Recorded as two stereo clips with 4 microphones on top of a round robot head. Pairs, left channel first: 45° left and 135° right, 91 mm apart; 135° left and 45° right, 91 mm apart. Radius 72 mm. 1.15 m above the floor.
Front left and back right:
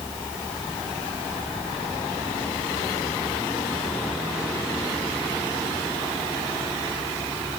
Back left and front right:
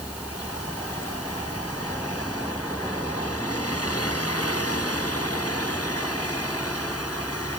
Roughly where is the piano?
I don't hear a piano.